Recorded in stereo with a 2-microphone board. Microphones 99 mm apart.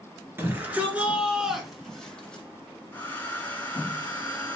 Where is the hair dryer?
25° left (ahead or behind), 1.8 m.